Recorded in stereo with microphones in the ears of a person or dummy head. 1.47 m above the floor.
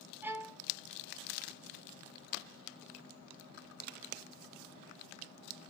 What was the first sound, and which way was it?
A violin, 10° right (ahead or behind).